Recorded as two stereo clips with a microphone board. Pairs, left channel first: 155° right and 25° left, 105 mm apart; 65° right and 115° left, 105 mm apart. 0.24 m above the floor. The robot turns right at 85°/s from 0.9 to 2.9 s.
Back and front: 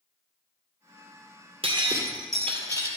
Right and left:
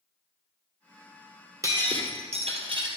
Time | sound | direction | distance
1.6 | breaking glass | 55° left | 1.8 m